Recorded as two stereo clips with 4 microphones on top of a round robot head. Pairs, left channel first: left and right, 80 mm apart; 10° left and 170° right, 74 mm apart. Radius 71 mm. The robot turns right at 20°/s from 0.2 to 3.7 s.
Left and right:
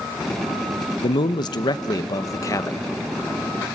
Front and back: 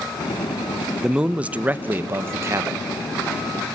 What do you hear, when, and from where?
1.0 s a man speaking: 110° left, 0.7 m; by 2.9 s 150° left, 0.7 m